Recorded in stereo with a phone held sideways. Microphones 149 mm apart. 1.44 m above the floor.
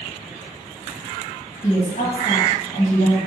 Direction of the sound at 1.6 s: 55° left (ahead or behind).